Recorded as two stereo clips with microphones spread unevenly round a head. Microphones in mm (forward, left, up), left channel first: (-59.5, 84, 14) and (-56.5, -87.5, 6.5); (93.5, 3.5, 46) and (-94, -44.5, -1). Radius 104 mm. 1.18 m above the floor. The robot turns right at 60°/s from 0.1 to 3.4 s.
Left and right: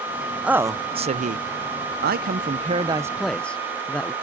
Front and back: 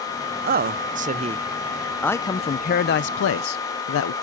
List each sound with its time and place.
0.4 s a man speaking: 170° right; by 4.1 s 5° left